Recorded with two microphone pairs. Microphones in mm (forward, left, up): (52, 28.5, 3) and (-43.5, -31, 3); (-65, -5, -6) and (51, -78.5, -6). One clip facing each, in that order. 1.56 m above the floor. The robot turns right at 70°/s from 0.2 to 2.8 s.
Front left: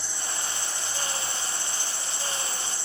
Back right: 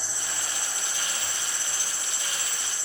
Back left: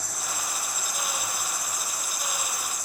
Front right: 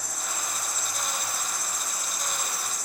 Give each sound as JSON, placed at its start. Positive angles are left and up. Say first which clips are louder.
{"t": 0.0, "sound": "an insect", "louder": "front left 1 dB, back left 1 dB", "azimuth_deg": 145, "distance_m": 3.0}